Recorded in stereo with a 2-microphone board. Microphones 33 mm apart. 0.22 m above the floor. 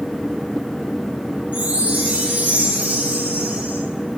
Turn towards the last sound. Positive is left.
turn(degrees=-60)  # may be behind; listen again after turning